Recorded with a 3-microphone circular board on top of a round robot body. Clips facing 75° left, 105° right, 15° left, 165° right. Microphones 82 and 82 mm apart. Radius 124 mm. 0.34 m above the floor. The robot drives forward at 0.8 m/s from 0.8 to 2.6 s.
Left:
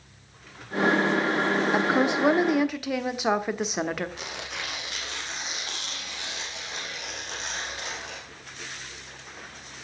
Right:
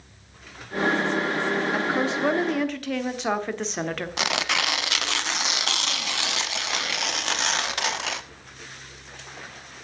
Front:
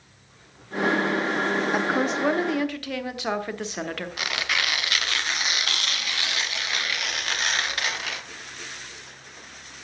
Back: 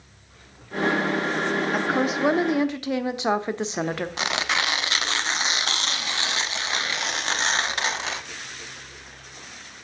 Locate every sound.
1.7 s a woman speaking: 90° left, 1.3 m; by 4.1 s 145° left, 1.5 m
4.2 s tearing paper: 100° right, 0.7 m